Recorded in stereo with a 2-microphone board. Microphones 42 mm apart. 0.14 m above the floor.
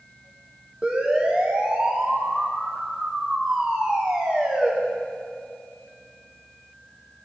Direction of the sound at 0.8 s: 25° right (ahead or behind).